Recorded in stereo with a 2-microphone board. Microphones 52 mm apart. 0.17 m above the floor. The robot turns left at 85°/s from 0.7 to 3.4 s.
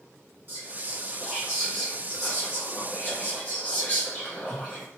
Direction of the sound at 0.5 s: 90° right.